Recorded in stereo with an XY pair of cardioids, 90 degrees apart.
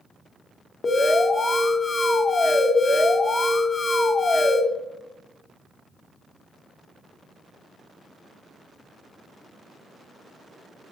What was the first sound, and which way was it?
An alarm, 35° left.